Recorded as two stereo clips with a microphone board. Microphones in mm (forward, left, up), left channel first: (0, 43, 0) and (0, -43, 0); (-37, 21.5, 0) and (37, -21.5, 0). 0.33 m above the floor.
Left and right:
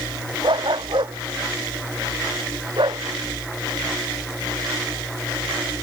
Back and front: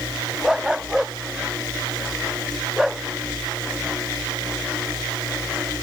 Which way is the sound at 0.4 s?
115° right.